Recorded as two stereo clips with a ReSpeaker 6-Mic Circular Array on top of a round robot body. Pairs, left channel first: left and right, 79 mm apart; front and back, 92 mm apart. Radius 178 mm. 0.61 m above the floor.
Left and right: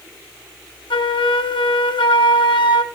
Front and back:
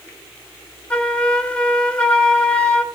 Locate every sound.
0.9 s a flute: 80° left, 1.2 m